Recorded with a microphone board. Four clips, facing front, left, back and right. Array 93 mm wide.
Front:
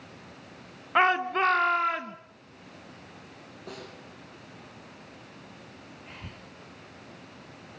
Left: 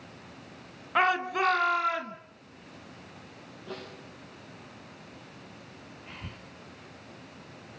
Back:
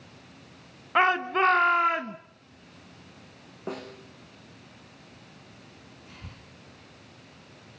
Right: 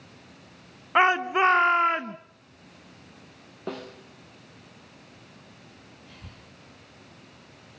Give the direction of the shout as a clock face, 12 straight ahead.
3 o'clock.